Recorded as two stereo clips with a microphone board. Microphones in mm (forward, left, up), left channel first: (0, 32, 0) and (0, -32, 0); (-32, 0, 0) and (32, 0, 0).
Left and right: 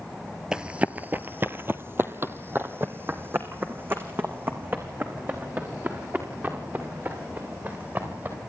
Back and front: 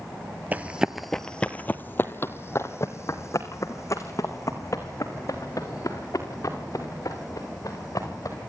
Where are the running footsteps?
25° right, 1.0 m; by 8.3 s 150° right, 8 m.